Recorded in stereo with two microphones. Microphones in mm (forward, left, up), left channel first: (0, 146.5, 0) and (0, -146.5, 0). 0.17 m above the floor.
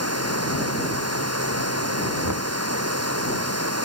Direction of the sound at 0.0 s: 55° right (ahead or behind).